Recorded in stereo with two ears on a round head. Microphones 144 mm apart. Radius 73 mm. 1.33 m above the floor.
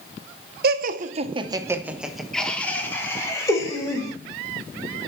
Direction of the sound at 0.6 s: 70° right (ahead or behind).